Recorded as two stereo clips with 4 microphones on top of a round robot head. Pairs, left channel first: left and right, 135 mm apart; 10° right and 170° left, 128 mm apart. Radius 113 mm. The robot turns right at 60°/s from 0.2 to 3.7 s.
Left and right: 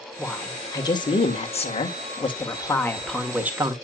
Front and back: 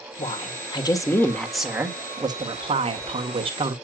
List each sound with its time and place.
0.2 s a woman speaking: straight ahead, 1.8 m; by 3.8 s 150° right, 1.8 m